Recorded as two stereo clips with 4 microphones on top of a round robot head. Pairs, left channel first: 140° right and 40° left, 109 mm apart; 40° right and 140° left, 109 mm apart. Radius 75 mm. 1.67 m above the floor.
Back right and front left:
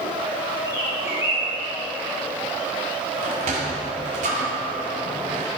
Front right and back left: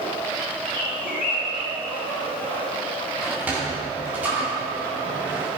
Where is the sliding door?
65° left, 2 m.